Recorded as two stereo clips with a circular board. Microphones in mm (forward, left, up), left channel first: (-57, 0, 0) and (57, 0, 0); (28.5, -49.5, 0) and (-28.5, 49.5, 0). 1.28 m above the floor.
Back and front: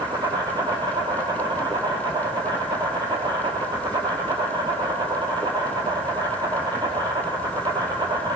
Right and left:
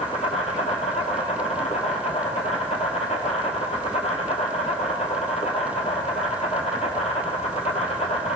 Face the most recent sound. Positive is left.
turn(degrees=-50)